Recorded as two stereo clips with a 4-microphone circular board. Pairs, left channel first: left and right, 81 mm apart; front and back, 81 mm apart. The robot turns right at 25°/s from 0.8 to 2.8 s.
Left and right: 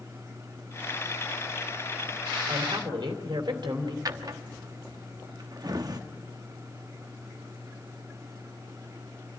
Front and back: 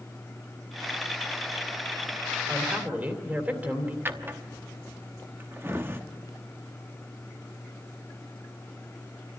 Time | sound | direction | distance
2.5 | a woman speaking | 120° right | 3 m
4.0 | a drawer | 120° right | 0.9 m